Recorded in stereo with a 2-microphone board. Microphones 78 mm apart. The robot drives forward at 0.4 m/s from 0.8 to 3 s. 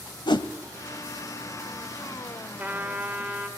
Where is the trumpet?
20° right (ahead or behind), 1.8 m.